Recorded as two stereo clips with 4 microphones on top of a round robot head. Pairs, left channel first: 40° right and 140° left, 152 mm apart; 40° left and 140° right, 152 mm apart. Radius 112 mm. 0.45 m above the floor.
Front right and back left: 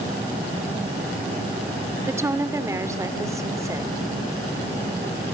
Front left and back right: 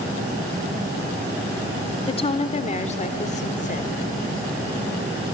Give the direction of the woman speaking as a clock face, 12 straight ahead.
10 o'clock.